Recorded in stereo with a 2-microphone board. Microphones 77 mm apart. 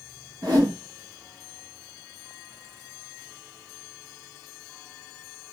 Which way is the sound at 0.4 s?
55° right (ahead or behind).